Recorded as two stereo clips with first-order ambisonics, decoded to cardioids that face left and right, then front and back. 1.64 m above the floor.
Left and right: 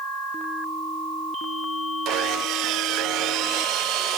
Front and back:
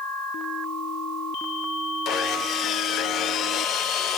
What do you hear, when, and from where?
2.0 s sawing: 50° right, 1.0 m